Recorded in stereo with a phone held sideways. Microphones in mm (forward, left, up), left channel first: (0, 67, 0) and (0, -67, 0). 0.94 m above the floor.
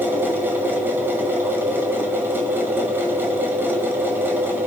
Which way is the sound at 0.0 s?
15° right (ahead or behind).